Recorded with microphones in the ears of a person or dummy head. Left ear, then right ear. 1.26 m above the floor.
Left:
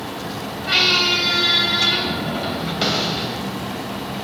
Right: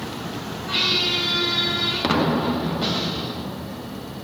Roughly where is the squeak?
Left.